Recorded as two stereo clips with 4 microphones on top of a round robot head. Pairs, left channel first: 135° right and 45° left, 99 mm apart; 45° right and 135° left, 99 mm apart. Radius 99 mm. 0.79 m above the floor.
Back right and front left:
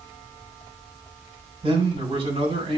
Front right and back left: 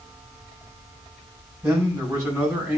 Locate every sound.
1.6 s a man speaking: 65° left, 7.5 m